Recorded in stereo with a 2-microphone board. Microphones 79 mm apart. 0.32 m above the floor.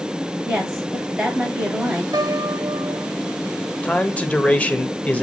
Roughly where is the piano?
Right.